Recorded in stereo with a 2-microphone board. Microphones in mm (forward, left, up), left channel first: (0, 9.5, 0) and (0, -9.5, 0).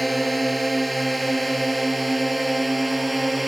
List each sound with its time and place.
0.0 s a drone: 5° left (ahead or behind)